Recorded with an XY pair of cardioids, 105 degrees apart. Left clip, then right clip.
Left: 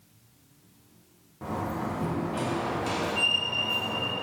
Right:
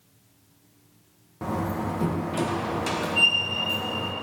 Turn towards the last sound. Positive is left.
turn(degrees=-50)